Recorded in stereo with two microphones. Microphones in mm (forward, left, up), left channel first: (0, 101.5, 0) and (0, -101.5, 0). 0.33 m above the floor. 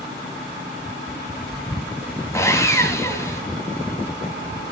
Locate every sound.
2.3 s sawing: 15° left (ahead or behind), 2.5 m